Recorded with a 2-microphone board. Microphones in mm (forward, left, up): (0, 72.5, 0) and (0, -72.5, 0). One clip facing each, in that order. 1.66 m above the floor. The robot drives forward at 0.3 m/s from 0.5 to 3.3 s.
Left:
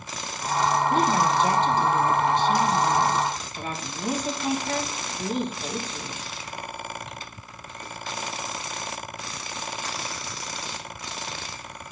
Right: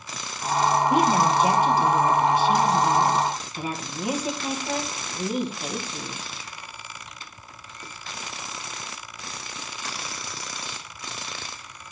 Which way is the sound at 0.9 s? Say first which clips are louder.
Right 2 dB; 10° right (ahead or behind).